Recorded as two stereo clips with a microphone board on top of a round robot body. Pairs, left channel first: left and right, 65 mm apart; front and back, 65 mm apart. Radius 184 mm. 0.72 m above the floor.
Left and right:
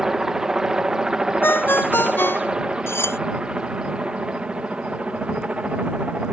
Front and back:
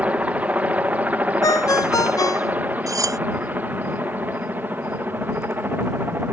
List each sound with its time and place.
0.0 s a helicopter: 160° right; by 6.3 s 150° right
1.4 s a ringtone: 35° left
2.9 s cutlery clinking: 145° left